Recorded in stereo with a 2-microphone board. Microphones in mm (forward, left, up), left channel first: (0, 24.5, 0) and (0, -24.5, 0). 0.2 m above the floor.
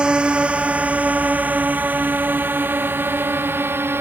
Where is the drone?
15° right (ahead or behind); by 4.0 s 45° right (ahead or behind).